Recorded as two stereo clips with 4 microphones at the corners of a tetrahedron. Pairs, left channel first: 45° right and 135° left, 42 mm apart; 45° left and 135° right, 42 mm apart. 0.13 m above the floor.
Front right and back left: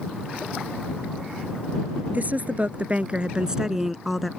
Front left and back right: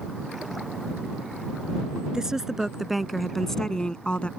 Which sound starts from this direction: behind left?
A woman speaking, at 2.1 s.